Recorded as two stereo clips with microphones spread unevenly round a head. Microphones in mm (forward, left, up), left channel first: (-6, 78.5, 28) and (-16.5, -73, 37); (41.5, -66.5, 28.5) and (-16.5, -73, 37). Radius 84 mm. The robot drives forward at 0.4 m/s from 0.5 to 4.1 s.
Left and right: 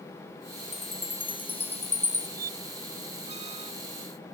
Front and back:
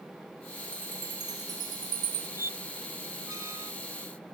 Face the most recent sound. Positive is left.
turn(degrees=-150)